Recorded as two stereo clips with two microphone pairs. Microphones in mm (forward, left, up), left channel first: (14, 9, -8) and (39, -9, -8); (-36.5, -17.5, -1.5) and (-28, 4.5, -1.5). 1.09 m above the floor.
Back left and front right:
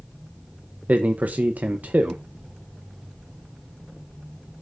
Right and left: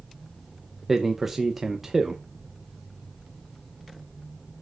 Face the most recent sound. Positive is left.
turn(degrees=-10)